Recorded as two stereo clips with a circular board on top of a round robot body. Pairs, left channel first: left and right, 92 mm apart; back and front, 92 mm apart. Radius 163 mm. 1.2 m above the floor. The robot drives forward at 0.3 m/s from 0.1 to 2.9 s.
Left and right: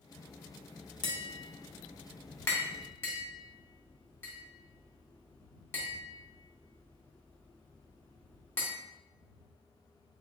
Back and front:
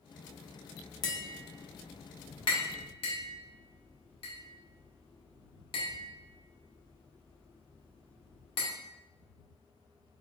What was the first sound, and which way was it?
Tapping, 130° left.